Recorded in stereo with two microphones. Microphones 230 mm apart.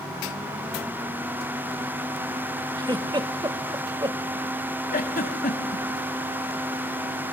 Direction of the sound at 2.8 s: 20° right (ahead or behind).